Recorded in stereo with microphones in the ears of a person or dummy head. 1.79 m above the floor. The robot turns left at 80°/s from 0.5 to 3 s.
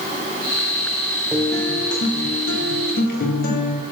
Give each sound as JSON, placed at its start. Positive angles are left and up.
{"t": 1.3, "sound": "a guitar", "azimuth_deg": -175, "distance_m": 1.4}